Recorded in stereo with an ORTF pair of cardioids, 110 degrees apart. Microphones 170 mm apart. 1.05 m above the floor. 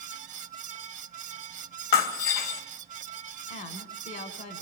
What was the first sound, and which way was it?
A fan, 50° right.